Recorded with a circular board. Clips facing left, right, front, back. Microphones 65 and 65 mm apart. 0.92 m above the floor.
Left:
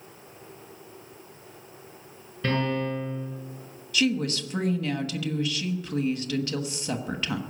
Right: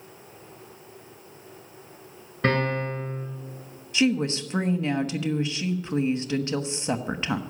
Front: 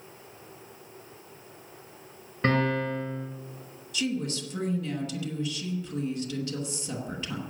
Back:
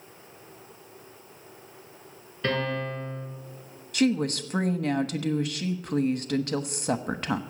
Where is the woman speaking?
155° right, 1.2 m.